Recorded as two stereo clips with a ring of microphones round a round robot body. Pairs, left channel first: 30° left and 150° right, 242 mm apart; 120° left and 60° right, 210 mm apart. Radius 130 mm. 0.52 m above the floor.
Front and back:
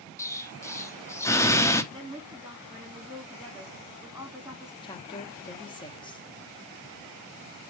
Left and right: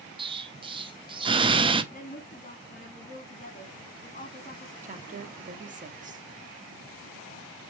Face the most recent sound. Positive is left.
turn(degrees=-30)